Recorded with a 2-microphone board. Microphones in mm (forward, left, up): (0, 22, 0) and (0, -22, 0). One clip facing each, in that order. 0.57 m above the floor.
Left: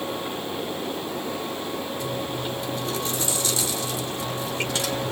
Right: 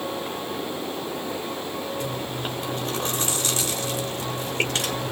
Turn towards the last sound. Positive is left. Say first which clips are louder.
# left 1 dB
turn(degrees=-50)  # may be behind; listen again after turning